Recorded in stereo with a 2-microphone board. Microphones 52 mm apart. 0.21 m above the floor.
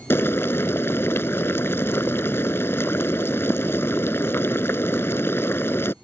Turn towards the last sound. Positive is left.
turn(degrees=55)  # may be behind; listen again after turning